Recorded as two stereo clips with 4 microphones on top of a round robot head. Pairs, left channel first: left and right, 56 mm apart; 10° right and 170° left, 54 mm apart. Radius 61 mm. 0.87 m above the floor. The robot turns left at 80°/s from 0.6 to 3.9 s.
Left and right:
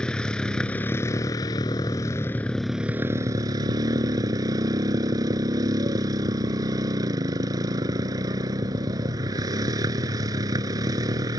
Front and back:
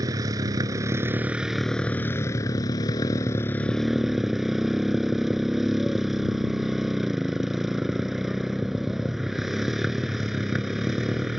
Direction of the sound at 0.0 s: 165° left.